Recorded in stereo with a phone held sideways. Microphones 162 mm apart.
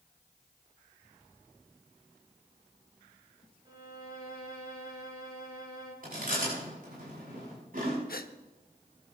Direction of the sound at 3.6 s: 35° right (ahead or behind).